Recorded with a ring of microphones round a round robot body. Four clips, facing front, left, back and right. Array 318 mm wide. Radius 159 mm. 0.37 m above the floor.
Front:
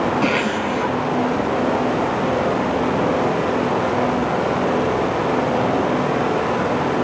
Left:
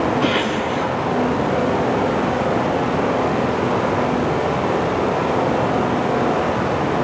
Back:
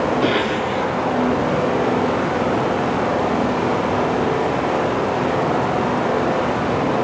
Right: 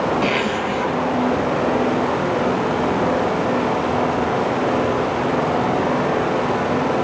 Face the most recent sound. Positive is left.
turn(degrees=-40)